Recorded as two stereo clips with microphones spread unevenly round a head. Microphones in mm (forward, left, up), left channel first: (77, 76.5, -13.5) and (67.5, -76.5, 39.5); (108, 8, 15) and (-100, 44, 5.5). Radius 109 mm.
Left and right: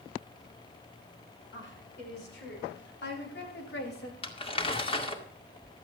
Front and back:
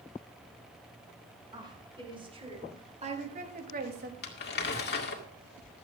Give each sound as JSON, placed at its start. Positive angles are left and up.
{"t": 1.5, "sound": "a woman speaking", "azimuth_deg": 100, "distance_m": 5.5}
{"t": 4.2, "sound": "crumpling", "azimuth_deg": 25, "distance_m": 2.0}